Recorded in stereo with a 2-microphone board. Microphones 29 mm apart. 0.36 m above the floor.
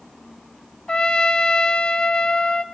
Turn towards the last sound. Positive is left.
turn(degrees=30)  # may be behind; listen again after turning